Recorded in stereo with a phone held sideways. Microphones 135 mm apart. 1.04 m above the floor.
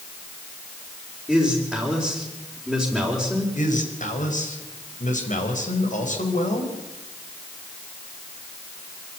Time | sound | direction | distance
1.3 | a man speaking | 5° left (ahead or behind) | 4 m
3.5 | a man speaking | 70° left (ahead or behind) | 4.5 m